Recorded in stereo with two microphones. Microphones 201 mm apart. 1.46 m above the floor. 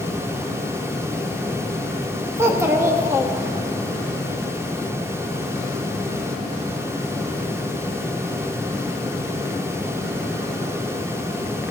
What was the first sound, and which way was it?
A child speaking, 15° right (ahead or behind).